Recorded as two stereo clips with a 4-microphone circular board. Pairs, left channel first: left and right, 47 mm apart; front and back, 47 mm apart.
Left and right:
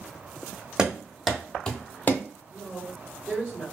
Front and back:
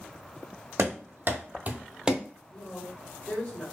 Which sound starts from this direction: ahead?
A man speaking, at 2.5 s.